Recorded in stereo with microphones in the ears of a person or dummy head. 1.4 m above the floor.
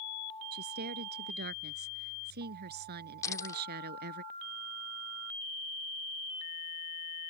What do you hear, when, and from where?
0.5 s a woman speaking: 50° right (ahead or behind)
3.2 s a dropped coin: 15° left (ahead or behind)